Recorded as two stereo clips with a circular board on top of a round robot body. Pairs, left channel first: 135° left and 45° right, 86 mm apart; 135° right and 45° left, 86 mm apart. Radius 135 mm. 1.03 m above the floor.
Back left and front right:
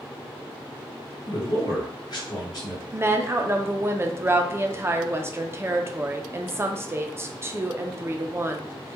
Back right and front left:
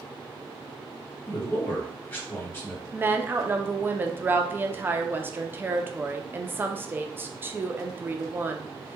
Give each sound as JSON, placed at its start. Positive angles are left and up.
{"t": 1.3, "sound": "a man speaking", "azimuth_deg": 165, "distance_m": 1.4}
{"t": 2.9, "sound": "a woman speaking", "azimuth_deg": -5, "distance_m": 0.5}